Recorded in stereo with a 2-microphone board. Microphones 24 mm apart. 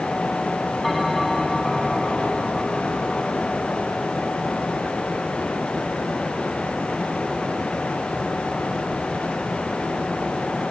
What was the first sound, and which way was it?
A bell, 5° left (ahead or behind).